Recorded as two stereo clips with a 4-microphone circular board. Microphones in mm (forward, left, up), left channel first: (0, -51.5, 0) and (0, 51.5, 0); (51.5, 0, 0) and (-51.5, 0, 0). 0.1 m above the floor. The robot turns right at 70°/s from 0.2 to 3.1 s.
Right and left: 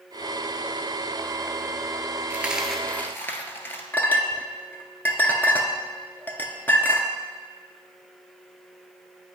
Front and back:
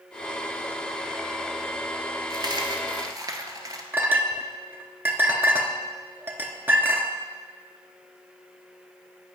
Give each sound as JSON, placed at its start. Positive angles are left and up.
{"t": 2.3, "sound": "a dropped coin", "azimuth_deg": 155, "distance_m": 0.8}
{"t": 3.9, "sound": "a clink", "azimuth_deg": -140, "distance_m": 0.8}